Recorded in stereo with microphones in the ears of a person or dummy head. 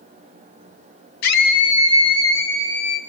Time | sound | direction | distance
1.2 | a scream | 50° left (ahead or behind) | 1.2 m